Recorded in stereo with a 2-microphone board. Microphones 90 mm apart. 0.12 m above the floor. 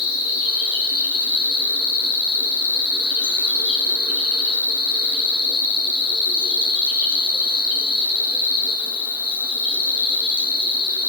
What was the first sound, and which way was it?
An insect, 15° right (ahead or behind).